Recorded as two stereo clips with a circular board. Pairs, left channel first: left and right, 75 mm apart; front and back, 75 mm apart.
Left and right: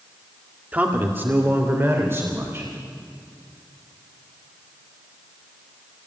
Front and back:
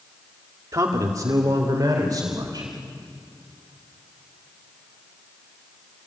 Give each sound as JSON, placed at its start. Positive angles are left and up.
{"t": 0.7, "sound": "a man speaking", "azimuth_deg": -150, "distance_m": 1.8}